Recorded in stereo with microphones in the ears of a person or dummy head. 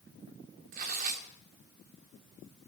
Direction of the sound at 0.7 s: 55° right (ahead or behind).